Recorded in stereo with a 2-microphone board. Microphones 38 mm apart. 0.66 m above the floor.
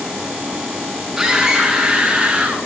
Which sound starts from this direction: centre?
A scream, at 1.2 s.